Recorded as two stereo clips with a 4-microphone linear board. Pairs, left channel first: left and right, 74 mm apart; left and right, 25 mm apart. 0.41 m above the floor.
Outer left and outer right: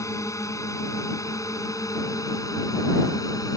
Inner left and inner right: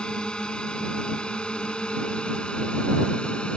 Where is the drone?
45° left (ahead or behind); by 3.6 s 50° left (ahead or behind).